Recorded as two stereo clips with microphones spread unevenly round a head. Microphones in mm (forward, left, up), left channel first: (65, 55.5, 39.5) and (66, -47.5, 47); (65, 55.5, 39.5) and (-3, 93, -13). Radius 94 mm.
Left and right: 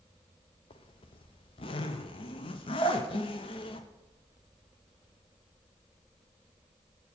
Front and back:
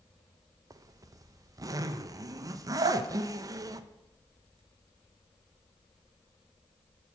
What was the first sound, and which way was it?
A zipper, 130° left.